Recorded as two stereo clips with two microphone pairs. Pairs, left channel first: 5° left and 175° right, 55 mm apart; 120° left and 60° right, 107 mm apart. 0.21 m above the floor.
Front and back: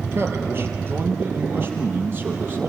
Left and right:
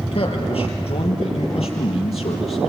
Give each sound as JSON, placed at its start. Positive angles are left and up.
{"t": 0.1, "sound": "a man speaking", "azimuth_deg": 140, "distance_m": 4.0}